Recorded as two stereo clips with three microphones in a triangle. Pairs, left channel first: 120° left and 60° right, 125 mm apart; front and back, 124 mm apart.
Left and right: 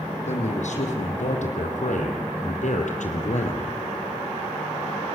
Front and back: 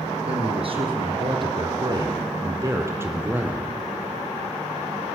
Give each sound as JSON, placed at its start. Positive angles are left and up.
{"t": 0.3, "sound": "a man speaking", "azimuth_deg": 140, "distance_m": 5.5}